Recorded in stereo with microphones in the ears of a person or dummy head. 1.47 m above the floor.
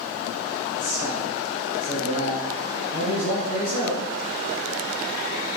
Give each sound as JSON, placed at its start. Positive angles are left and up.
{"t": 0.8, "sound": "a man speaking", "side_deg": 40, "distance_m": 3.5}